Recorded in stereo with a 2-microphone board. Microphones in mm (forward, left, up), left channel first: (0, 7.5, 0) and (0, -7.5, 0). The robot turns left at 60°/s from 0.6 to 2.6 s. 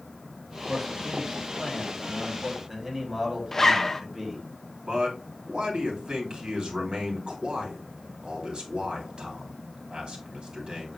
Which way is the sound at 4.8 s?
85° right.